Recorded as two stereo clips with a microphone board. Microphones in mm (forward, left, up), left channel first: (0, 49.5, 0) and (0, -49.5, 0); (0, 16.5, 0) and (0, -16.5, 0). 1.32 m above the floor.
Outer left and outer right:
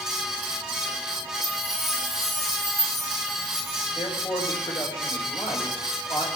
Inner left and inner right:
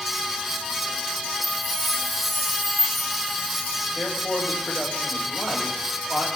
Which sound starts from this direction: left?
A man speaking, at 4.0 s.